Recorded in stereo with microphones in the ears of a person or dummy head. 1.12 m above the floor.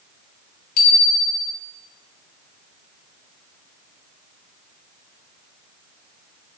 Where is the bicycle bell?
50° left (ahead or behind), 3 m.